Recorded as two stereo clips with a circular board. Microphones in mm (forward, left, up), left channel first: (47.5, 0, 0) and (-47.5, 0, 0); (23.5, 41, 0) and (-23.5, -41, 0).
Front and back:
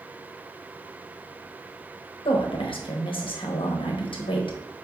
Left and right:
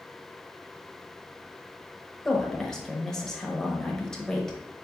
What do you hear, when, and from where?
2.2 s a woman speaking: 25° right, 0.8 m